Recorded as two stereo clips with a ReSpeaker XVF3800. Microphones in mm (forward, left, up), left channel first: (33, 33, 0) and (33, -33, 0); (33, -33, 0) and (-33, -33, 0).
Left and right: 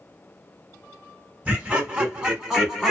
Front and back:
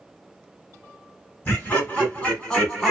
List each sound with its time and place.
1.4 s laughter: 35° right, 1.7 m; by 2.9 s 45° right, 1.4 m